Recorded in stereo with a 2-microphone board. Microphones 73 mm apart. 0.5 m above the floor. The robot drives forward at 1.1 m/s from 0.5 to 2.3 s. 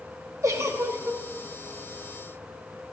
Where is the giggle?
45° right (ahead or behind), 3 m; by 1.2 s 40° right (ahead or behind), 3.5 m.